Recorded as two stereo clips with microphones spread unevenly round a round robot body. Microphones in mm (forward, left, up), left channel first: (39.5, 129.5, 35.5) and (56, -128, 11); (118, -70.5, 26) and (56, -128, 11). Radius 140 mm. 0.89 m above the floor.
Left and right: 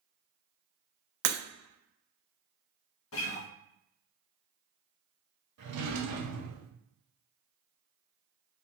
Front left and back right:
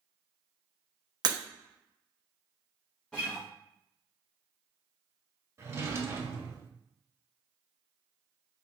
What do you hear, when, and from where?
1.2 s breaking glass: 100° right, 0.7 m
3.1 s a guitar: 130° left, 0.6 m
5.6 s a drawer: 75° right, 1.2 m